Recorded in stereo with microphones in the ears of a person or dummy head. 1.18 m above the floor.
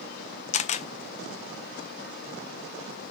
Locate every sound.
0.5 s a camera shutter: 40° left (ahead or behind), 0.5 m